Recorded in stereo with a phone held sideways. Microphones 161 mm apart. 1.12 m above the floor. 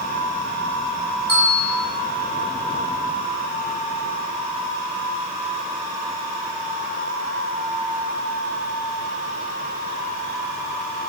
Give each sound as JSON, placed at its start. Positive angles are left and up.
{"t": 1.3, "sound": "a bell", "side_deg": -20, "distance_m": 2.5}